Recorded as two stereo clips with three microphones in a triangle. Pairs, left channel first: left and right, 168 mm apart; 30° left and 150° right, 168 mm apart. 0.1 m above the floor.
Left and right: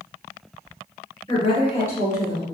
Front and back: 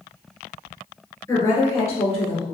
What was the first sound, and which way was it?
A woman speaking, 75° left.